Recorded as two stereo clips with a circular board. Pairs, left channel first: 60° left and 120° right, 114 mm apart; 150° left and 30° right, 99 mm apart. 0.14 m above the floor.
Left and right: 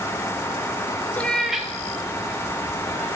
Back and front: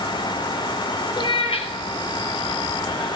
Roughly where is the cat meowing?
Behind left.